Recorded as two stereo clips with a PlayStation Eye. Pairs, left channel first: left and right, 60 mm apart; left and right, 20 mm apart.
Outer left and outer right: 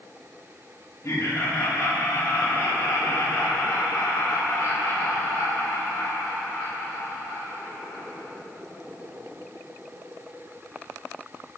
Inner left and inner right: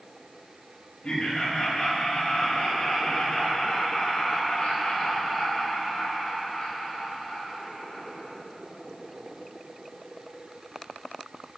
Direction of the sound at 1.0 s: 60° left (ahead or behind).